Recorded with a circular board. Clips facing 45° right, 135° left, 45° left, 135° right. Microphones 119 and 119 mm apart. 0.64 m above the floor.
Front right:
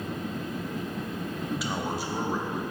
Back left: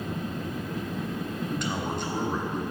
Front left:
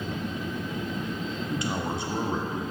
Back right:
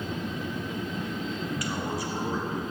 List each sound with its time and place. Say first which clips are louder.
1.5 s a man speaking: front right 1 dB, front left 4 dB; 30° left, 0.7 m